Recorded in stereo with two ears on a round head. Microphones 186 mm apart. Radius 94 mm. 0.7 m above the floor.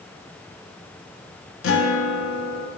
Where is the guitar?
70° left (ahead or behind), 1.1 m.